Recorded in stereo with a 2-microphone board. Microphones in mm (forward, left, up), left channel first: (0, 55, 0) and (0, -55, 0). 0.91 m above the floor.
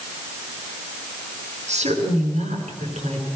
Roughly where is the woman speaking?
Right.